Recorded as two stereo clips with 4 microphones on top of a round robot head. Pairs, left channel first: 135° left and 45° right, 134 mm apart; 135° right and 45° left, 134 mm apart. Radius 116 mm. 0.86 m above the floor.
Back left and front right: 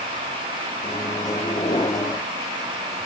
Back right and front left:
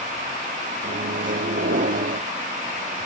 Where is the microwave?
70° left, 1.2 m.